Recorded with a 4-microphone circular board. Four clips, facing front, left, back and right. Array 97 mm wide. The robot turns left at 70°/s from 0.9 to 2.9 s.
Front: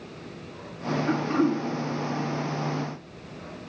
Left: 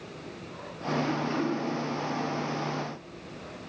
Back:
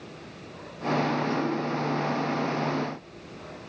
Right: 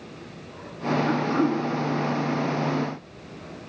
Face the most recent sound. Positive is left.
turn(degrees=-110)